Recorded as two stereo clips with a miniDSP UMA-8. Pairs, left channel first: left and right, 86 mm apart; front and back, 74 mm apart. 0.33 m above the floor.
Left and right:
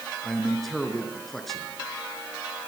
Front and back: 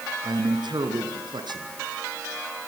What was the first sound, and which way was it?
A man speaking, 175° left.